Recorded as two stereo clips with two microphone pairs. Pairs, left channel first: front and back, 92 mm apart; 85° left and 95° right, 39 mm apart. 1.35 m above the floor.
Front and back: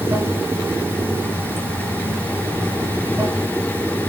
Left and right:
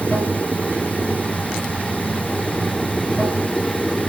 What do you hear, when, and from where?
0.0 s running water: 125° left, 1.9 m